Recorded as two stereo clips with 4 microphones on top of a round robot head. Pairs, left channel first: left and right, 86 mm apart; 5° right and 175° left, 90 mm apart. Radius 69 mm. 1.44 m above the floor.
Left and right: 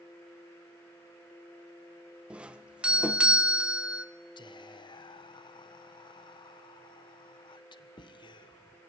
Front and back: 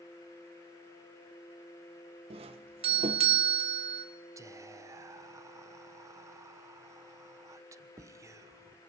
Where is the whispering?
120° left, 1.2 m.